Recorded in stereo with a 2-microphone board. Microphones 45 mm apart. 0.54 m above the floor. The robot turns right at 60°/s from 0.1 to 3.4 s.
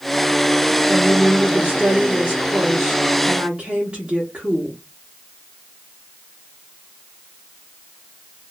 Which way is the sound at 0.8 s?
175° left.